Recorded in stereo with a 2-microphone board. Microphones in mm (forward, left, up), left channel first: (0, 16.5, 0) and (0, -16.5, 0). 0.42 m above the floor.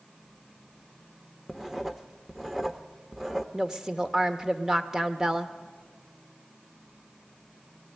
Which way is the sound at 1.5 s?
5° right (ahead or behind).